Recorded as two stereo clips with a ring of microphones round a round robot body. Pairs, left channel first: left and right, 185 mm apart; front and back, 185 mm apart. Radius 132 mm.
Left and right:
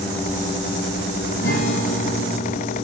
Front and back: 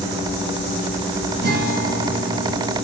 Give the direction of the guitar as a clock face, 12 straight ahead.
7 o'clock.